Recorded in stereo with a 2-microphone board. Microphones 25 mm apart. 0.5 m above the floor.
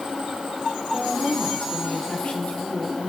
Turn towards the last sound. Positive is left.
turn(degrees=70)  # may be behind; listen again after turning